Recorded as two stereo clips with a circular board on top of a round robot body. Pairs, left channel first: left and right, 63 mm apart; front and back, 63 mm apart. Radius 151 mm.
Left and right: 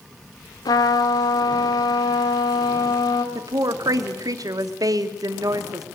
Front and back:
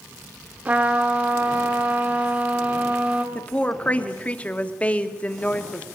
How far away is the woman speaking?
About 1.8 m.